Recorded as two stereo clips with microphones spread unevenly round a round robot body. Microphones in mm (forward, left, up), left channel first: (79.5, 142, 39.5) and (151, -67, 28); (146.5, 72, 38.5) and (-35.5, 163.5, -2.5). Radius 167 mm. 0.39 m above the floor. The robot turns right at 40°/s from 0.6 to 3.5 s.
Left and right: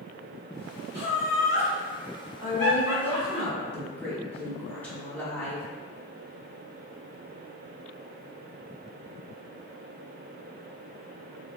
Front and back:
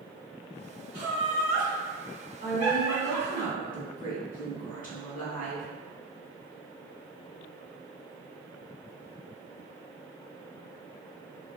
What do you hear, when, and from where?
0.9 s laughter: 135° right, 2.0 m; by 3.4 s 40° right, 2.0 m
2.4 s a woman speaking: 20° right, 1.5 m; by 5.7 s 25° left, 1.5 m